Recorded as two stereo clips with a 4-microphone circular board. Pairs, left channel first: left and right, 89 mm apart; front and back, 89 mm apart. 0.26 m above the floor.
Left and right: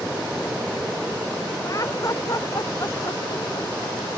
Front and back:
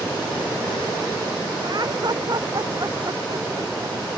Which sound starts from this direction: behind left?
Laughter, at 1.6 s.